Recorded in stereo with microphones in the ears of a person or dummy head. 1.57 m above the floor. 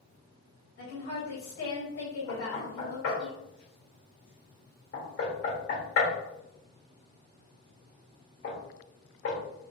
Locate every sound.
0.8 s a woman speaking: 65° left (ahead or behind), 1.5 m
2.3 s knocking: 60° left (ahead or behind), 1.4 m